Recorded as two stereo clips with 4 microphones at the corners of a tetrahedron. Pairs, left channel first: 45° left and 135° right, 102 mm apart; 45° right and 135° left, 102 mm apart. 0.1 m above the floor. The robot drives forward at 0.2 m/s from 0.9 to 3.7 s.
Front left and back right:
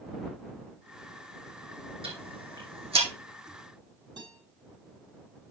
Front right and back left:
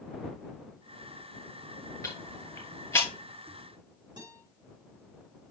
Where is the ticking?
110° right, 3 m.